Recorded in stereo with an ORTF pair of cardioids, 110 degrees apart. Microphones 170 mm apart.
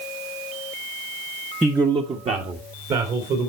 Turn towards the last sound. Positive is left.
turn(degrees=-55)